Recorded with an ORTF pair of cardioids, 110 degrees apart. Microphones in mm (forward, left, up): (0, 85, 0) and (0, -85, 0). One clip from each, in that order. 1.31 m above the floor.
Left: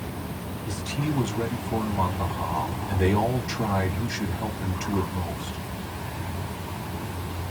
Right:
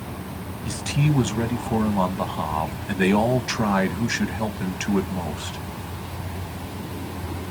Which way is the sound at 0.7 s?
65° right.